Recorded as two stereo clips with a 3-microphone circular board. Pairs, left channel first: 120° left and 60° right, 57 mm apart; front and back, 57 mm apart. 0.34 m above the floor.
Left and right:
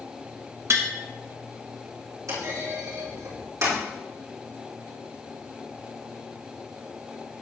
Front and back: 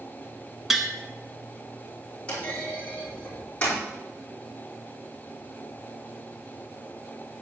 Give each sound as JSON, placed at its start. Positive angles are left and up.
{"t": 0.7, "sound": "tapping", "azimuth_deg": -95, "distance_m": 1.0}
{"t": 2.3, "sound": "a clunk", "azimuth_deg": -65, "distance_m": 5.0}